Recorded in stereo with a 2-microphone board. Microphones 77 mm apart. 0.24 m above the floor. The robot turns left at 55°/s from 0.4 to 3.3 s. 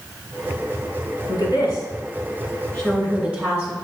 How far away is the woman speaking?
About 2.5 m.